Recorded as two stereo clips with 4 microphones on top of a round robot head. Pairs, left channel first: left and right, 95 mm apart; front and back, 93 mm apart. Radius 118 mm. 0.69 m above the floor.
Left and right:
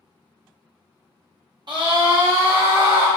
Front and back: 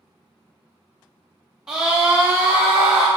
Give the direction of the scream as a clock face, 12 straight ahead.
3 o'clock.